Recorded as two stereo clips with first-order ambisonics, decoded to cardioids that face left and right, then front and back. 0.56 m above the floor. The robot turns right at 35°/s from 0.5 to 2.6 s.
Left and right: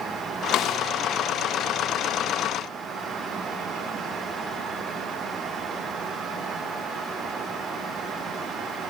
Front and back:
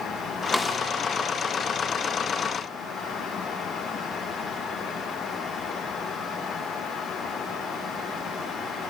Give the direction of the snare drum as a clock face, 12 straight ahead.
9 o'clock.